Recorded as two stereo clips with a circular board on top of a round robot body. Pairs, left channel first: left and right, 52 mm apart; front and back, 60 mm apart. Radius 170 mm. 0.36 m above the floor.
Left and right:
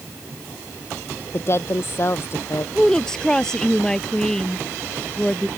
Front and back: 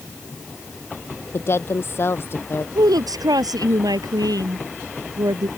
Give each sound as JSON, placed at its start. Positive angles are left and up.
{"t": 1.3, "sound": "a woman speaking", "azimuth_deg": 50}
{"t": 2.8, "sound": "a woman speaking", "azimuth_deg": 170}